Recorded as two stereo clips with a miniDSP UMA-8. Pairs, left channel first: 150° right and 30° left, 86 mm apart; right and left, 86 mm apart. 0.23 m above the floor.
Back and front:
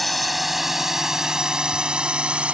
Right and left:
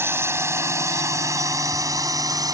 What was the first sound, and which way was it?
A drone, 120° left.